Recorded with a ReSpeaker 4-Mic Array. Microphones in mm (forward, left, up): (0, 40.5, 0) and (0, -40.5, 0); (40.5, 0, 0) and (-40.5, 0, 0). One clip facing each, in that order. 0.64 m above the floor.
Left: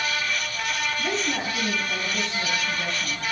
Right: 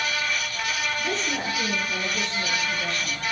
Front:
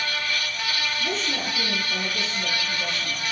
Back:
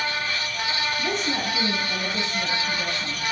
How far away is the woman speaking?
About 4 m.